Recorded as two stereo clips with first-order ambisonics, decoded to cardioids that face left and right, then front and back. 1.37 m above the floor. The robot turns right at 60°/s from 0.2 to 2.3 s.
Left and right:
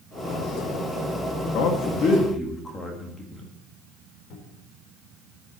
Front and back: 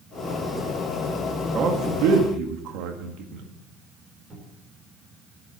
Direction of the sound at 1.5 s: 120° left.